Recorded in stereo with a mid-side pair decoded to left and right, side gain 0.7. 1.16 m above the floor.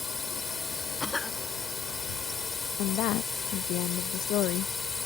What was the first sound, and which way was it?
A drone, 20° left.